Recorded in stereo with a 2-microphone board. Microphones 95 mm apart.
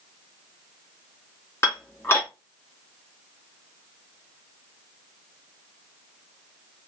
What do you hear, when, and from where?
1.6 s dishes clattering: 25° left (ahead or behind), 1.6 m